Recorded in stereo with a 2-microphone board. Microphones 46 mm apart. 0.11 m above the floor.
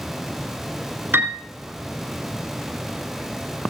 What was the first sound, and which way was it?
A piano, 50° right (ahead or behind).